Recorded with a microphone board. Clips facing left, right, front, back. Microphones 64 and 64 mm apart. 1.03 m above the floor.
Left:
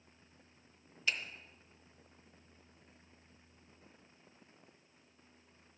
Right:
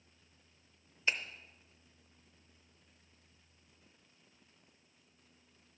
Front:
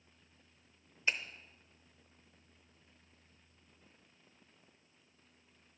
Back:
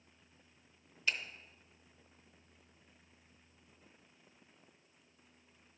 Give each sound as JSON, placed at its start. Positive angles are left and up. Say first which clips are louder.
{"t": 1.1, "sound": "a finger snap", "louder": "right 2 dB, front 1 dB", "azimuth_deg": -50, "distance_m": 0.7}